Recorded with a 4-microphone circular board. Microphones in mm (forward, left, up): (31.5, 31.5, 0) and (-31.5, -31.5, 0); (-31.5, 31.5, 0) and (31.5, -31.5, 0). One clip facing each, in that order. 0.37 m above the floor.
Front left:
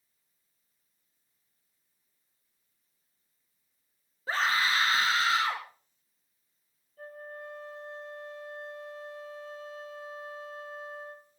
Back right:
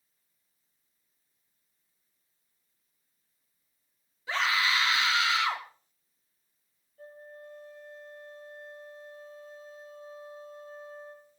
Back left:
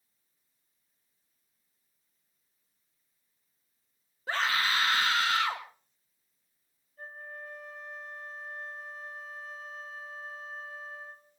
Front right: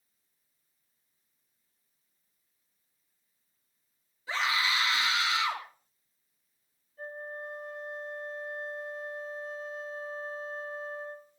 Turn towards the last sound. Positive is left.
turn(degrees=45)